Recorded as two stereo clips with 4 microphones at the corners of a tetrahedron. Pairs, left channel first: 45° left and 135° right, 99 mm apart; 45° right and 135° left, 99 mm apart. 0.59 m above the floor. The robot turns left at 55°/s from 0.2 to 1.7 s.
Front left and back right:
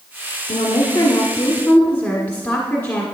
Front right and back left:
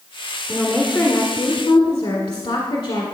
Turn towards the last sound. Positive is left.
turn(degrees=-20)